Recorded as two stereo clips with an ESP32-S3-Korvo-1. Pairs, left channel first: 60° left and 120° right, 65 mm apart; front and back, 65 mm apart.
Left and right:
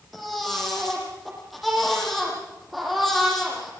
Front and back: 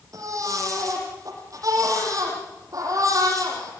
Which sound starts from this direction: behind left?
A baby crying, at 0.1 s.